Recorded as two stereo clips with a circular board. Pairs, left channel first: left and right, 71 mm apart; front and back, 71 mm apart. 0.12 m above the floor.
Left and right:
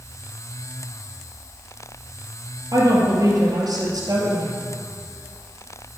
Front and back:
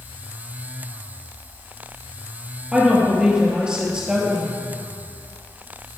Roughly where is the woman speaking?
Right.